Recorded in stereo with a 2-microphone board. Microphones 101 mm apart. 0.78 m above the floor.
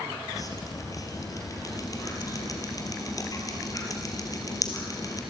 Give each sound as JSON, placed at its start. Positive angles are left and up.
{"t": 0.3, "sound": "dripping", "side_deg": 40, "distance_m": 3.0}